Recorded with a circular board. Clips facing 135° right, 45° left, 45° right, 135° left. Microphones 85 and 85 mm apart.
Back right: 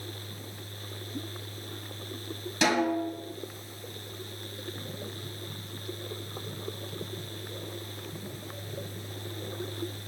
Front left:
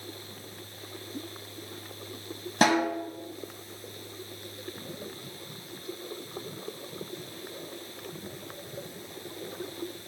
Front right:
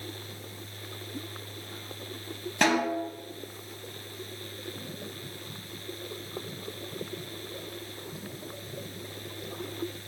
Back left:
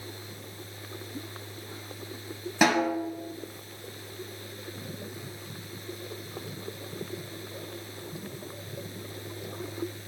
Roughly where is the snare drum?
Ahead left.